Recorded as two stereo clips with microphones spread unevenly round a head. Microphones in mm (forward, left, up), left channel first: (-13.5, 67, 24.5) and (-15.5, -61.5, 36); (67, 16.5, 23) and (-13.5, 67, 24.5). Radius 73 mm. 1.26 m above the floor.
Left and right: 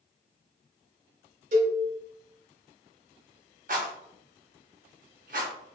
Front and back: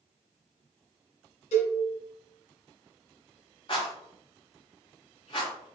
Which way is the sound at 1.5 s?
55° right.